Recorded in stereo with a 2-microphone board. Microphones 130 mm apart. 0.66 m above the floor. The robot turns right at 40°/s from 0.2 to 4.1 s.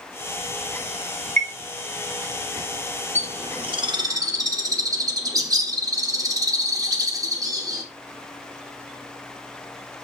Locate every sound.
1.4 s a chime: 75° right (ahead or behind), 0.6 m; by 1.5 s 70° right (ahead or behind), 0.6 m
3.1 s a bird: 70° right, 1.1 m; by 7.8 s 30° right, 1.1 m